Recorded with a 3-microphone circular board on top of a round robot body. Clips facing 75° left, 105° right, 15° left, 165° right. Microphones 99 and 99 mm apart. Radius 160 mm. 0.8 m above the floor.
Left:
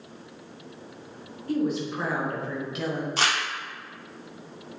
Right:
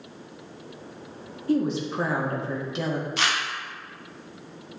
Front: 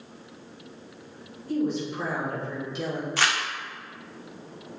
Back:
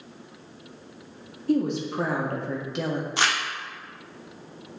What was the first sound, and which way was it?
A woman speaking, 165° right.